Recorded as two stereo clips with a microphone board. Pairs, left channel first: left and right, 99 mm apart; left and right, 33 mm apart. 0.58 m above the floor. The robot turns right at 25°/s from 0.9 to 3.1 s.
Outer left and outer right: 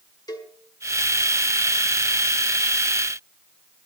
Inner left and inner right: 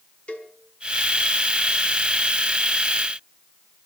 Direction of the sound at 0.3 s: 45° left (ahead or behind).